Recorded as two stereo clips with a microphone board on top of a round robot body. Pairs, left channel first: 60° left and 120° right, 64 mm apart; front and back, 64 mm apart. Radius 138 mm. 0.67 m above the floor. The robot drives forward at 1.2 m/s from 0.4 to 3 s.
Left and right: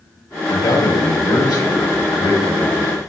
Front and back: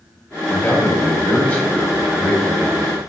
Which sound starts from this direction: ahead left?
A man speaking, at 0.5 s.